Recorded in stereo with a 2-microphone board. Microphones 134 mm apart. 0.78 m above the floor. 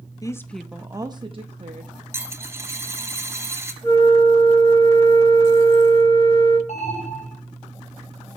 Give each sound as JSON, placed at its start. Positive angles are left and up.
{"t": 0.2, "sound": "a woman speaking", "side_deg": 25, "distance_m": 0.8}
{"t": 2.1, "sound": "a dropped coin", "side_deg": -20, "distance_m": 0.9}
{"t": 3.8, "sound": "a flute", "side_deg": 25, "distance_m": 7.5}
{"t": 6.7, "sound": "an alarm", "side_deg": 60, "distance_m": 3.5}